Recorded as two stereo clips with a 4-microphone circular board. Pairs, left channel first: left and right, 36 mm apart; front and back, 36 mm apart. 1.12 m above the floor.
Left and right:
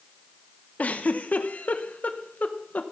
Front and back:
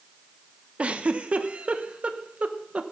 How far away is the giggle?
About 1.0 m.